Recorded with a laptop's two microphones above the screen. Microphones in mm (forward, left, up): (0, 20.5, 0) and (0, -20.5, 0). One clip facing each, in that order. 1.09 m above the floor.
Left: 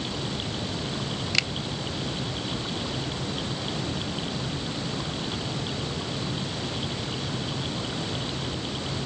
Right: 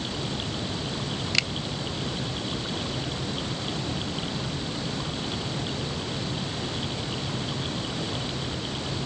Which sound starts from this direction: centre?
A finger snap, at 1.3 s.